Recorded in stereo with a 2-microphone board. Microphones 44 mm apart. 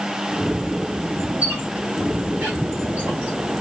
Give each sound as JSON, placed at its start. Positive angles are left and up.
{"t": 1.4, "sound": "a squeak", "side_deg": -45, "distance_m": 6.0}